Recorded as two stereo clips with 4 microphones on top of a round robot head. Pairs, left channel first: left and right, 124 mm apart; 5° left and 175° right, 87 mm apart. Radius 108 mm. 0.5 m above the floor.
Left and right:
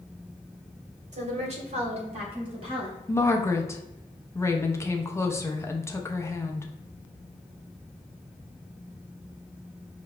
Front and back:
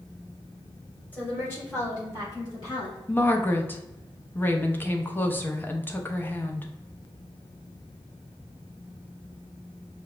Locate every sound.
1.1 s a woman speaking: 70° right, 1.6 m; by 3.0 s 45° right, 2.5 m
3.1 s a woman speaking: 45° left, 0.8 m